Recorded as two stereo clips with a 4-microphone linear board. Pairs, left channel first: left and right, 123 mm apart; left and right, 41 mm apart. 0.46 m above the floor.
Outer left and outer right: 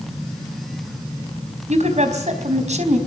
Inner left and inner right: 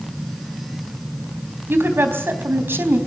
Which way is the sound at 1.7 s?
70° right (ahead or behind).